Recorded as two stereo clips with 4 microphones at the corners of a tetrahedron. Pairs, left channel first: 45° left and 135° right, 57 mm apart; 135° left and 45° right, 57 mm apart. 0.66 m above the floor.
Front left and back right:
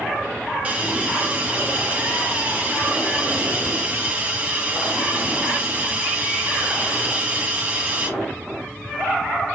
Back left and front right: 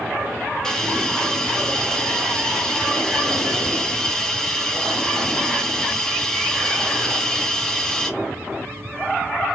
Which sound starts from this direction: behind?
A hiss, at 0.6 s.